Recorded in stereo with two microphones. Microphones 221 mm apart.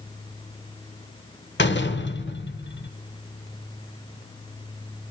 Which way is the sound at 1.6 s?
55° left (ahead or behind).